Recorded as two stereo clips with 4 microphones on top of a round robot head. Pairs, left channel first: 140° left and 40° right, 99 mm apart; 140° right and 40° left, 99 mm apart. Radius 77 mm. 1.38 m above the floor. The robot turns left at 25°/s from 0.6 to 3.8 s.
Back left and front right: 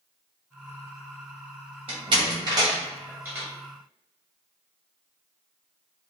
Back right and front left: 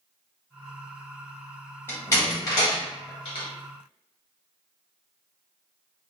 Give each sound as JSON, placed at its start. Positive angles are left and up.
{"t": 1.9, "sound": "a door slam", "azimuth_deg": -70, "distance_m": 0.7}